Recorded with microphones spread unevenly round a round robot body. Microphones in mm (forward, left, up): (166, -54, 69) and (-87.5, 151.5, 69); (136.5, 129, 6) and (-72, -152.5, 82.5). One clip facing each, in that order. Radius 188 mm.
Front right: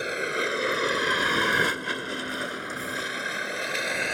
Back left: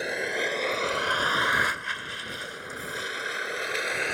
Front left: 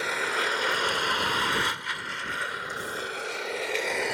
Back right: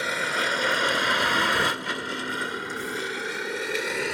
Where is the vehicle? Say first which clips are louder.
Front right 1 dB, back right 1 dB; 125° right; by 4.1 s 55° right.